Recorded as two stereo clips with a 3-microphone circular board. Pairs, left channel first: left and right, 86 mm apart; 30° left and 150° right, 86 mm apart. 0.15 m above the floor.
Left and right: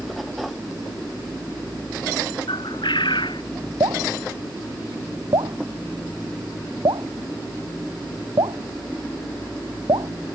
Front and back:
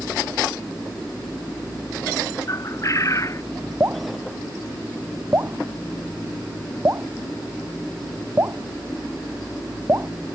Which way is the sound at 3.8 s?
95° right.